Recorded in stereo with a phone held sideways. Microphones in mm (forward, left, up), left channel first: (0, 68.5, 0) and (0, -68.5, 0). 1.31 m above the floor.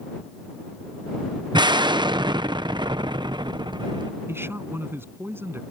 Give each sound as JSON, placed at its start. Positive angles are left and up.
{"t": 1.5, "sound": "an explosion", "side_deg": -35}
{"t": 4.3, "sound": "a man speaking", "side_deg": -15}